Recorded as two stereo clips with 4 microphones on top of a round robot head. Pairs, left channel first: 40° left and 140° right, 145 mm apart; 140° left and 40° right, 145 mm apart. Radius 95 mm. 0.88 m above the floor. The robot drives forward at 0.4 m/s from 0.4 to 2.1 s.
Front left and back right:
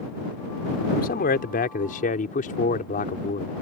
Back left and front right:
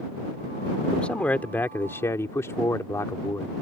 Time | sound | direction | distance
0.9 | a man speaking | 55° left | ?